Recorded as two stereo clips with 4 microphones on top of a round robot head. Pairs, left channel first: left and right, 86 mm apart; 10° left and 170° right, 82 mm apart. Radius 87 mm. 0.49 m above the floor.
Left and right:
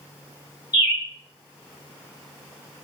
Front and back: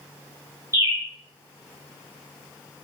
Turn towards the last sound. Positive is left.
turn(degrees=135)